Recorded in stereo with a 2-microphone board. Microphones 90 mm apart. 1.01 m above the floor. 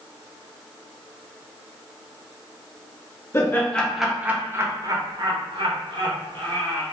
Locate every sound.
3.3 s laughter: 30° left (ahead or behind), 0.6 m; by 6.8 s 70° right (ahead or behind), 1.6 m